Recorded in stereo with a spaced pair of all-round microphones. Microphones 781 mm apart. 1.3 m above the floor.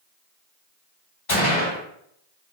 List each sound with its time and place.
1.3 s a gunshot: 45° left (ahead or behind), 1.7 m